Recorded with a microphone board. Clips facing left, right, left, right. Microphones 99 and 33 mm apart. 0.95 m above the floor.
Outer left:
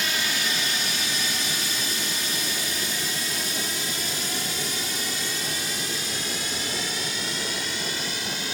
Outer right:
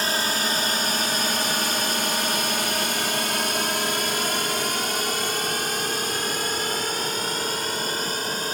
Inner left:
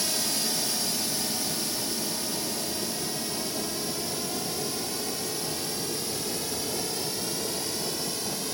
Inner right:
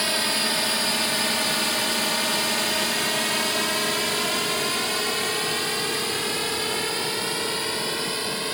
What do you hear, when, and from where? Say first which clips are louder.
0.0 s a drone: outer right 4 dB, inner right 7 dB; 40° right (ahead or behind); by 8.5 s 45° right (ahead or behind)